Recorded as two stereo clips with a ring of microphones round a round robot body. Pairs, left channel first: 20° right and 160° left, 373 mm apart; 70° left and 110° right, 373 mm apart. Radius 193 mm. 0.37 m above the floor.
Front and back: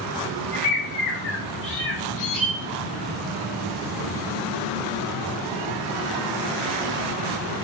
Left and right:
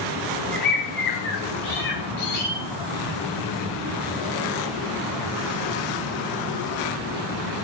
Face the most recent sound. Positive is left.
turn(degrees=5)